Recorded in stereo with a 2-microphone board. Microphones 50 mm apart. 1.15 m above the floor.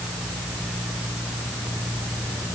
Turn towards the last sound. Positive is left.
No sound to turn to.